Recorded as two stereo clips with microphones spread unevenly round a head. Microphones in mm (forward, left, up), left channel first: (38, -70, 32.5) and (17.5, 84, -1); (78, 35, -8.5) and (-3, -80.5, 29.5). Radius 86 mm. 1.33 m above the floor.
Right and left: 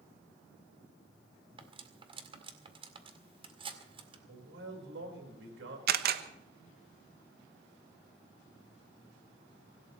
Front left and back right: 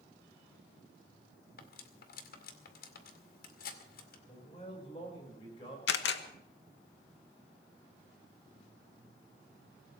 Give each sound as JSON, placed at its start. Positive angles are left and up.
{"t": 1.6, "sound": "cutlery clinking", "azimuth_deg": 35, "distance_m": 2.0}
{"t": 4.3, "sound": "a man speaking", "azimuth_deg": 120, "distance_m": 5.0}
{"t": 5.9, "sound": "a camera shutter", "azimuth_deg": 70, "distance_m": 1.1}